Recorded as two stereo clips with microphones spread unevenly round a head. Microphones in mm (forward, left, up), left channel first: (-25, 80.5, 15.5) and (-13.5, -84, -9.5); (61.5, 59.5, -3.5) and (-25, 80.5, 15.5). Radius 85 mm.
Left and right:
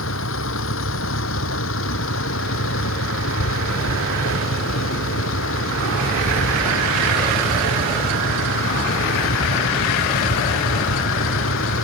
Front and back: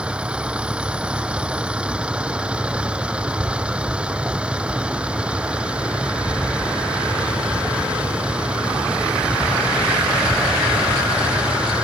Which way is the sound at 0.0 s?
90° left.